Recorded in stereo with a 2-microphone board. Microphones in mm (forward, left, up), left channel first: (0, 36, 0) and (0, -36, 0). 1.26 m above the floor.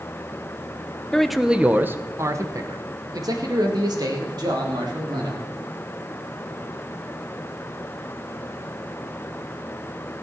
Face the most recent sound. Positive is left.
turn(degrees=-75)  # may be behind; listen again after turning